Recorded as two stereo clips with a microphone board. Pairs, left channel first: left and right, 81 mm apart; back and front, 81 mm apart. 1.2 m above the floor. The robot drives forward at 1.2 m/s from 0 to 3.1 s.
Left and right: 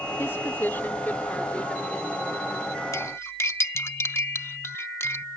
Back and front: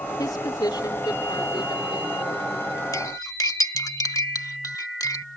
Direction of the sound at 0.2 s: 150° left.